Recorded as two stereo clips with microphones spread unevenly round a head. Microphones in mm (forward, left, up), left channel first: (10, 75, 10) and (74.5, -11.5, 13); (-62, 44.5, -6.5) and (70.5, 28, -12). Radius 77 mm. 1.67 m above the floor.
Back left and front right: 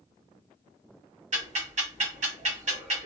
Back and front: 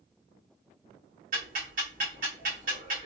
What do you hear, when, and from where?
1.3 s ticking: 45° right, 2.0 m